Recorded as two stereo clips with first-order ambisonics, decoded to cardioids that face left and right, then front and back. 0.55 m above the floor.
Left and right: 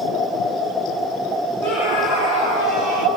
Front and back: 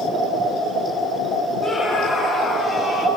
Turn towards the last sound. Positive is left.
turn(degrees=90)